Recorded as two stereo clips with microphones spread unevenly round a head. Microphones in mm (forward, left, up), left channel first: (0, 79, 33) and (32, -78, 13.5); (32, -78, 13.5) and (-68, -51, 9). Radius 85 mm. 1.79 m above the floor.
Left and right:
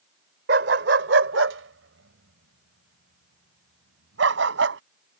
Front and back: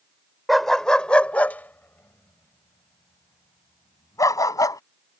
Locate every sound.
0.5 s a dog barking: 100° right; by 4.8 s 70° right